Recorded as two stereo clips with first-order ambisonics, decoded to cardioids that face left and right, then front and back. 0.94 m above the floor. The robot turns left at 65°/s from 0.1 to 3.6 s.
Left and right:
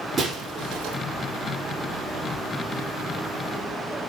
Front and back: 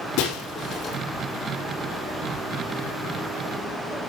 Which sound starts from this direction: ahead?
Breaking glass, at 0.2 s.